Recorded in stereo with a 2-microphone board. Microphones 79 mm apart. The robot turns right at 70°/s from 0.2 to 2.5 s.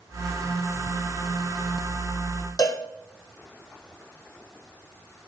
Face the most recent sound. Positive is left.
turn(degrees=55)  # may be behind; listen again after turning